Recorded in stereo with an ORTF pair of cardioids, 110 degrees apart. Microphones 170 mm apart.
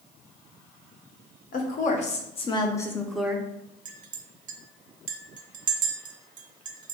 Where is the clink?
55° right, 0.7 m.